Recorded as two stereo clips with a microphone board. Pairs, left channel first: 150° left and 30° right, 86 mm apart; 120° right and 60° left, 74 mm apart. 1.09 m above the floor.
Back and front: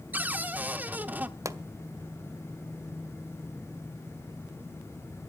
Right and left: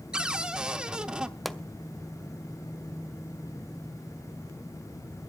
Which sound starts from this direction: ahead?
A cupboard door, at 0.1 s.